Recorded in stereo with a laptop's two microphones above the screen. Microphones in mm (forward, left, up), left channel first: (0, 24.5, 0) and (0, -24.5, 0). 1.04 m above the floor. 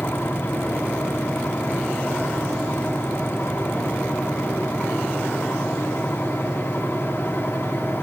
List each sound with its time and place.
0.0 s a fan: 70° left (ahead or behind), 1.8 m